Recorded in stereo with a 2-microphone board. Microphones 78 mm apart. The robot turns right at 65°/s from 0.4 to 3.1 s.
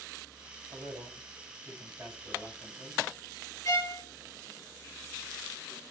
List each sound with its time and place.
0.7 s a man speaking: 105° right, 5 m; by 3.0 s 45° left, 5 m
3.6 s a violin: 45° left (ahead or behind), 1.4 m